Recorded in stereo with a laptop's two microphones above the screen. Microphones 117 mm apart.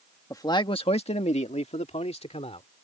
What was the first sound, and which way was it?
A man speaking, 25° left (ahead or behind).